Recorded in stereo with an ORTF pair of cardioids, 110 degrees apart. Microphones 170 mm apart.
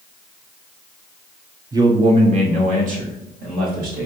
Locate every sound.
1.7 s a man speaking: 20° right, 0.8 m; by 4.1 s 60° right, 2 m